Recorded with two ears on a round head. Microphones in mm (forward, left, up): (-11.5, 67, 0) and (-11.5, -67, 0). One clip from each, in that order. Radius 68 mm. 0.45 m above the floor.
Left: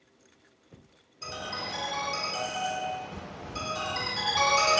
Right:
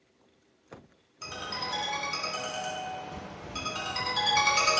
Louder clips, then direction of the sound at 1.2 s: Even; 55° right (ahead or behind).